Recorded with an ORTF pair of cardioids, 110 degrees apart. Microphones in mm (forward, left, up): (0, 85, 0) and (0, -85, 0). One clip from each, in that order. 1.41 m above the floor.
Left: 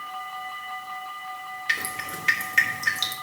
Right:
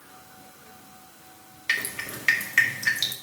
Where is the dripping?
10° right, 1.9 m.